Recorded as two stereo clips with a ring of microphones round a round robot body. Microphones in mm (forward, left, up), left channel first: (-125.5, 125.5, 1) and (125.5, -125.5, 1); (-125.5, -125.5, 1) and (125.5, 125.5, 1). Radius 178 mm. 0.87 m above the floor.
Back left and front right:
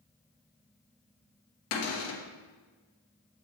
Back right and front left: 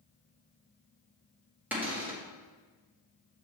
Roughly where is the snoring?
I don't hear snoring.